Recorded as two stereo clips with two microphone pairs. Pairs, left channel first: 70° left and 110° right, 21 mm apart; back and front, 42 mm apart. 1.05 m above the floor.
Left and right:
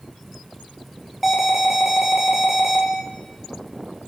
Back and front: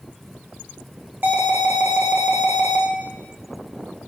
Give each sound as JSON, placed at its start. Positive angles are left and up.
{"t": 1.2, "sound": "an alarm", "azimuth_deg": -25, "distance_m": 1.3}